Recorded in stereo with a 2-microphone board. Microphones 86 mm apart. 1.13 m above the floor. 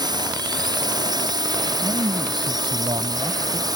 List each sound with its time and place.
0.0 s a drone: 55° right (ahead or behind); by 3.8 s 50° right (ahead or behind)
1.8 s a man speaking: 65° right (ahead or behind)